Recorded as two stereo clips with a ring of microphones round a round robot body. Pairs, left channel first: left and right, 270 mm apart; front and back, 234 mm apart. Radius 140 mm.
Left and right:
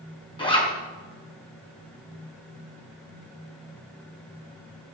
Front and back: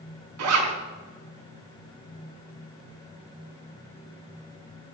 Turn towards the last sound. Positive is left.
turn(degrees=165)